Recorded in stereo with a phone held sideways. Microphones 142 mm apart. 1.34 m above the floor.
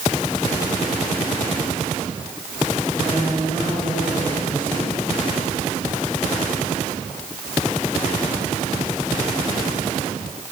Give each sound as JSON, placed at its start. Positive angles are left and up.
{"t": 3.0, "sound": "a woman speaking", "side_deg": -15, "distance_m": 7.0}